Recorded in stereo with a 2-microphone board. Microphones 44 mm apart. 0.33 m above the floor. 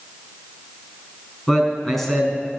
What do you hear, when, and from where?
1.5 s a man speaking: 10° left (ahead or behind), 4 m